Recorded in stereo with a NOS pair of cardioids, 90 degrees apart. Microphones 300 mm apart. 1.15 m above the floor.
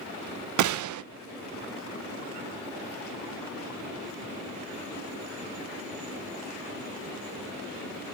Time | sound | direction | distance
0.6 | a gunshot | 70° right | 0.7 m